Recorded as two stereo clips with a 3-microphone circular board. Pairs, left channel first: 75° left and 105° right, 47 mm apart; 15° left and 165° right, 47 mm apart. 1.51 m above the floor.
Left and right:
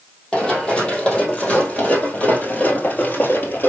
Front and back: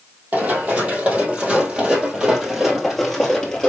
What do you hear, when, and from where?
0.3 s running footsteps: 145° left, 3 m; by 3.7 s 85° left, 2 m